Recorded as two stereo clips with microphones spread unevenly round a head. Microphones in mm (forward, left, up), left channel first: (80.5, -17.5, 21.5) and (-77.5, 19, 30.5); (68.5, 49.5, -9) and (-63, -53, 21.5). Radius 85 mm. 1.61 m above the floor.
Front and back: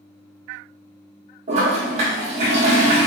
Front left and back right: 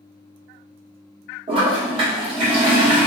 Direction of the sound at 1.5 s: 165° right.